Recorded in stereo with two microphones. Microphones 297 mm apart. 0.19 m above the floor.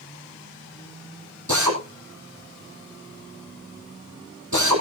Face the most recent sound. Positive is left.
turn(degrees=-75)  # may be behind; listen again after turning